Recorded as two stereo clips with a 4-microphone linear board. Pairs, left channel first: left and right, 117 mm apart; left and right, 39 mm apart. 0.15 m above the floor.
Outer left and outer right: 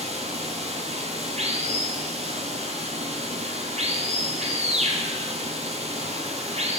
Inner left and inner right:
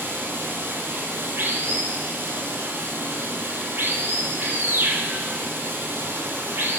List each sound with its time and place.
0.0 s running water: 65° right (ahead or behind), 1.2 m